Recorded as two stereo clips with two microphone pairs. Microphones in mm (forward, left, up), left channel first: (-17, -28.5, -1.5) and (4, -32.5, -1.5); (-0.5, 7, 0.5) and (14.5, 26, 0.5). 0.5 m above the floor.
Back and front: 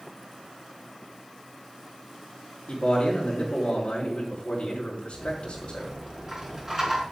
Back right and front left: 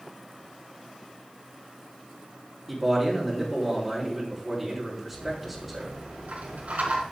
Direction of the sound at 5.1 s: 55° left.